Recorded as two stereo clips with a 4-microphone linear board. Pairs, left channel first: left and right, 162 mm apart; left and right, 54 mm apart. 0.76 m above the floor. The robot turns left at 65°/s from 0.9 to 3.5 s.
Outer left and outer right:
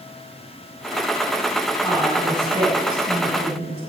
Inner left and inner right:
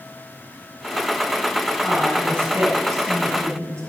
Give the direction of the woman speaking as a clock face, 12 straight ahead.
12 o'clock.